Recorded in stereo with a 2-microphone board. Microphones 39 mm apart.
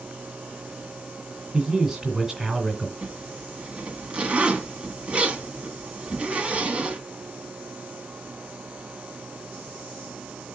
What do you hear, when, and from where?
1.5 s a man speaking: 15° right (ahead or behind), 2.0 m
3.0 s a zipper: 35° right (ahead or behind), 1.4 m